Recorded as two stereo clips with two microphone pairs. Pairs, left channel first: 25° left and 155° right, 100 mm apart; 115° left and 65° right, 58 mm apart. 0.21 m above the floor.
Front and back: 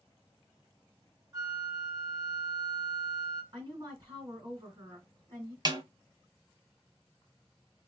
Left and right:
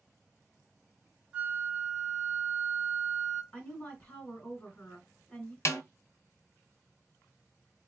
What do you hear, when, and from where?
1.3 s a flute: 125° right, 1.0 m
3.5 s a woman speaking: 170° left, 1.8 m
5.7 s a snare drum: 155° left, 0.6 m